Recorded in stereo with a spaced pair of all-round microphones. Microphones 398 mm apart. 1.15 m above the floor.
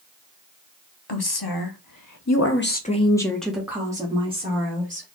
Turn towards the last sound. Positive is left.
turn(degrees=-20)  # may be behind; listen again after turning